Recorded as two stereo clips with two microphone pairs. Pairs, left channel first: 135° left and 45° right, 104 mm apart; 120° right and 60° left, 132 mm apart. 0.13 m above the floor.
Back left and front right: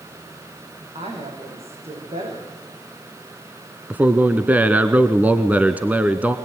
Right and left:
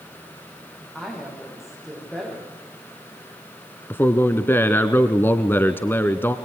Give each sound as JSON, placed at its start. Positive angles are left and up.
{"t": 0.9, "sound": "a woman speaking", "azimuth_deg": -30, "distance_m": 9.0}
{"t": 3.9, "sound": "a man speaking", "azimuth_deg": -85, "distance_m": 1.1}